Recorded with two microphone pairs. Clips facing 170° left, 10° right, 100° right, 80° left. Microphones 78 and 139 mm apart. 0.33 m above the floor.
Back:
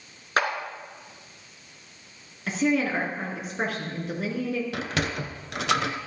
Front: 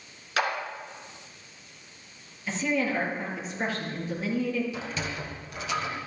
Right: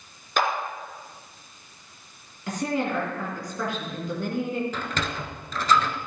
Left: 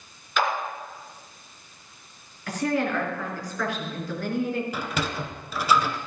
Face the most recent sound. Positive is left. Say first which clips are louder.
# back 5 dB, left 1 dB
turn(degrees=160)